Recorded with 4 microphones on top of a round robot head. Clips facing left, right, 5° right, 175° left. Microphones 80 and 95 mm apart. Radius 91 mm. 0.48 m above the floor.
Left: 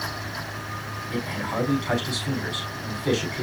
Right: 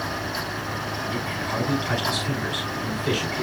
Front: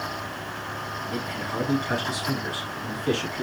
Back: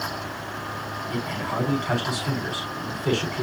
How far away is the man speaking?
About 5.5 m.